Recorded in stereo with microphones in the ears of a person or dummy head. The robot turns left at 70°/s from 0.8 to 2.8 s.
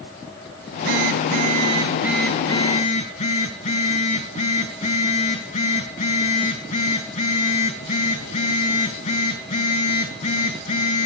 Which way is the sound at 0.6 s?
85° right.